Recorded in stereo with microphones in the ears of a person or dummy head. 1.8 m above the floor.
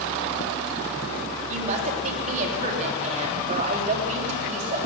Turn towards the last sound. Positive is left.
turn(degrees=-40)  # may be behind; listen again after turning